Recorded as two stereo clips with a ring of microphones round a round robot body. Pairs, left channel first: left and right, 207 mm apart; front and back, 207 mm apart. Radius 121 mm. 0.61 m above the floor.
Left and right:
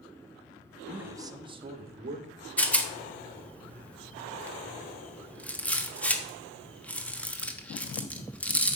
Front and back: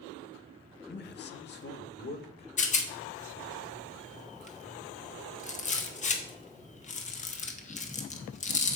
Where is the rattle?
10° left, 1.2 m.